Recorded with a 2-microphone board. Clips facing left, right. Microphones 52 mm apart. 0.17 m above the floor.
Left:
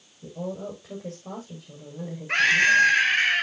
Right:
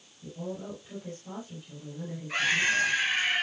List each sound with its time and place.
0.2 s a woman speaking: 80° left, 6 m
2.3 s a scream: 55° left (ahead or behind), 3.5 m